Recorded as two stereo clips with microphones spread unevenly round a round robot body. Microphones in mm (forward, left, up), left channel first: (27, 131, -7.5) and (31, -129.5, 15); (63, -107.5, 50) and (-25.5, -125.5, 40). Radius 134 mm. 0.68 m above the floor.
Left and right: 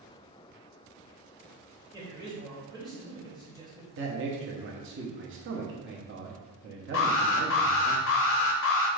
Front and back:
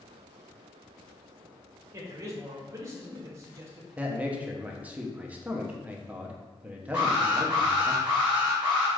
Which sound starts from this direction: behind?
A man speaking, at 1.9 s.